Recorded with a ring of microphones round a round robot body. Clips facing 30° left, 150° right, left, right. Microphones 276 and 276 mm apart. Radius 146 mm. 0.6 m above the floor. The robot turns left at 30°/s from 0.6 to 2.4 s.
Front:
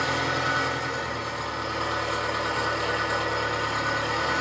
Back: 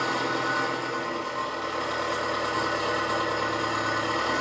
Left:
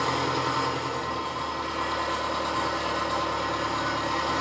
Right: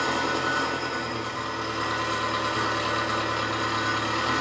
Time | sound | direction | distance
0.0 | an engine running | 15° right | 1.9 m